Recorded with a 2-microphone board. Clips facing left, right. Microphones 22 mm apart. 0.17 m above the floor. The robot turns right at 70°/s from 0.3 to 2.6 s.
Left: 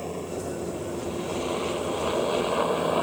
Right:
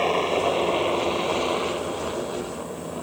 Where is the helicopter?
65° right (ahead or behind); by 3.0 s 40° left (ahead or behind).